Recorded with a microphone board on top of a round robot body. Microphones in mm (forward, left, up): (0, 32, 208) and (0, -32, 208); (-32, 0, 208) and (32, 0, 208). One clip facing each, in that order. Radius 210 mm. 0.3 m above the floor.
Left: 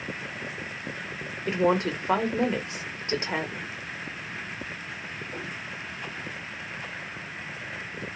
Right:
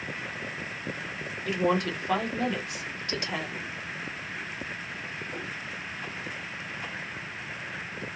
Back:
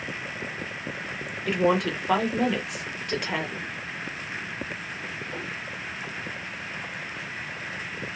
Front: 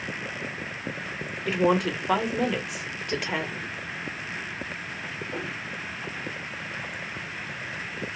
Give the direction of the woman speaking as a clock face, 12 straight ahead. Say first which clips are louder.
Left 3 dB, even; 9 o'clock.